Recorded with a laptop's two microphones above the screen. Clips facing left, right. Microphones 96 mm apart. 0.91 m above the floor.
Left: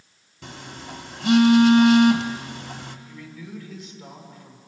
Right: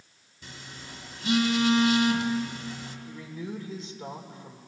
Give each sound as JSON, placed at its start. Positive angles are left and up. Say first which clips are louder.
{"t": 0.4, "sound": "a phone buzzing", "louder": "left 7 dB", "side_deg": 65, "distance_m": 1.5}
{"t": 3.1, "sound": "a man speaking", "louder": "right 2 dB", "side_deg": -35, "distance_m": 3.0}